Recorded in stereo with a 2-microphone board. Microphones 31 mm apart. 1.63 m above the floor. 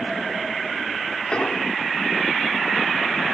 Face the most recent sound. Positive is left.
turn(degrees=35)  # may be behind; listen again after turning